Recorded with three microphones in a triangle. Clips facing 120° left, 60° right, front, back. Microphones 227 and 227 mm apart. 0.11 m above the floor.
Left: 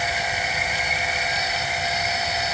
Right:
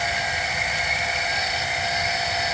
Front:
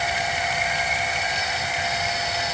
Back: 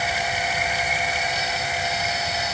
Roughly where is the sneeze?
I don't hear a sneeze.